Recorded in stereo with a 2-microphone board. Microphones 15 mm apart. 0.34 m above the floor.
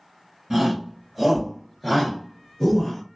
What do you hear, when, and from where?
0.5 s a shout: 40° right (ahead or behind), 1.8 m; by 3.0 s 25° left (ahead or behind), 1.5 m